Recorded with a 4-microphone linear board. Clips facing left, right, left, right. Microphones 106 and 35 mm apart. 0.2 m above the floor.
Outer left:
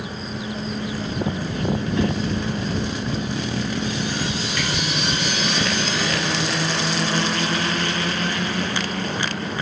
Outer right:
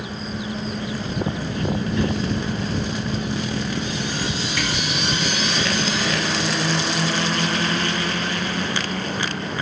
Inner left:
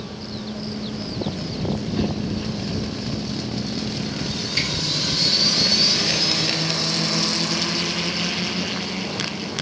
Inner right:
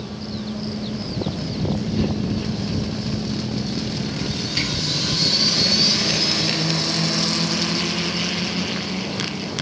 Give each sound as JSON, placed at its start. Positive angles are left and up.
{"t": 1.9, "sound": "a whoosh", "side_deg": 25, "distance_m": 1.2}
{"t": 4.6, "sound": "a camera shutter", "side_deg": -10, "distance_m": 1.4}